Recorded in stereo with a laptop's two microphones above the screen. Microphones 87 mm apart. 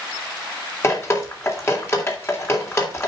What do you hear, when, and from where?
0.8 s dripping: 30° left (ahead or behind), 3 m